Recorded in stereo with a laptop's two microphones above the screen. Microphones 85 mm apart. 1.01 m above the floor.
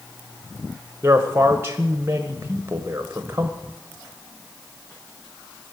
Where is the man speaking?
25° right (ahead or behind), 0.7 m.